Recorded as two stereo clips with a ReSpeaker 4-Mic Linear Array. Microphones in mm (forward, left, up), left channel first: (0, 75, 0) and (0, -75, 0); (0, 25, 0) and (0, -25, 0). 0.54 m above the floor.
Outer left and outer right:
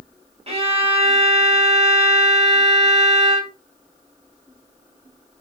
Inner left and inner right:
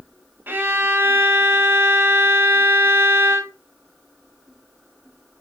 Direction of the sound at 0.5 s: 40° right (ahead or behind).